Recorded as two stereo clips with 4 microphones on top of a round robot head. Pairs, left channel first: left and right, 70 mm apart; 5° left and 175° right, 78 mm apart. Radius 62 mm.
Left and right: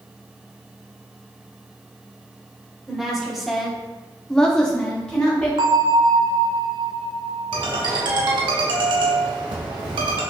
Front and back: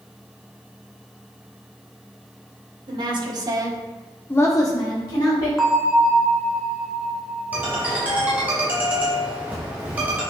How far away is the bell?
About 0.8 m.